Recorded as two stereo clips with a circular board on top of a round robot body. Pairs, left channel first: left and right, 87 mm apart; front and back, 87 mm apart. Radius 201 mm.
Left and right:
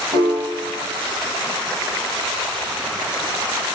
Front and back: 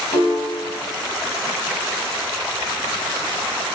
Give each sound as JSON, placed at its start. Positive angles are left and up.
{"t": 0.1, "sound": "a piano", "azimuth_deg": -30, "distance_m": 7.5}